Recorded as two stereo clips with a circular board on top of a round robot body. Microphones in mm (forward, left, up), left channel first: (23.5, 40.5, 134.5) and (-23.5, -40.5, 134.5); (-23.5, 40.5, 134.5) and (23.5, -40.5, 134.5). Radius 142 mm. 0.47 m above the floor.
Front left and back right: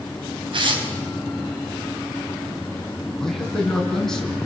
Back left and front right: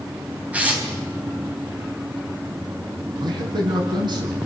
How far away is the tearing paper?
About 4 m.